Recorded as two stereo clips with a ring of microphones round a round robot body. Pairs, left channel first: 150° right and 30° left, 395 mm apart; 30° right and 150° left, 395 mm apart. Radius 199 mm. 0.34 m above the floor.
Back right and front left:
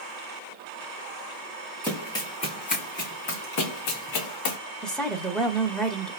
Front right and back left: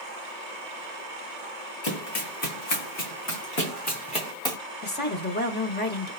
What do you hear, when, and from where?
1.8 s running footsteps: 65° right, 2 m; by 4.6 s 110° right, 2 m
4.8 s a woman speaking: 65° right, 1.3 m